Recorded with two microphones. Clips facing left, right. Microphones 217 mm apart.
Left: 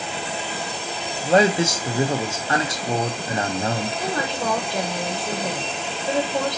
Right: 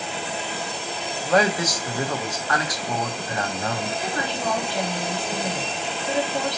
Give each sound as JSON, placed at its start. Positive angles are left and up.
{"t": 1.2, "sound": "a man speaking", "side_deg": 25, "distance_m": 0.6}
{"t": 4.0, "sound": "a woman speaking", "side_deg": 45, "distance_m": 1.5}